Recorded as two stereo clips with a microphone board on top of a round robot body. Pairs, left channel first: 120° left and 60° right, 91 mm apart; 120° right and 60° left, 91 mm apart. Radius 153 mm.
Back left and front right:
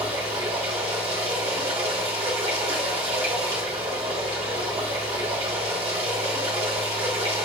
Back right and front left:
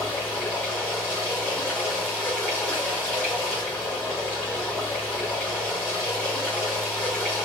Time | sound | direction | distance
0.0 | running water | 50° right | 0.8 m